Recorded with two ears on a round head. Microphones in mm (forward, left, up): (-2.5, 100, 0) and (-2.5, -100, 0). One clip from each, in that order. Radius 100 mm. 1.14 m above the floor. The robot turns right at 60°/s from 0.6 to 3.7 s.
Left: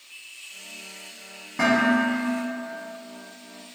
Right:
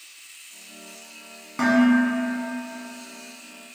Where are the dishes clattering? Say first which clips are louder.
Right 1 dB; 145° right, 1.2 m; by 2.4 s 95° right, 1.2 m.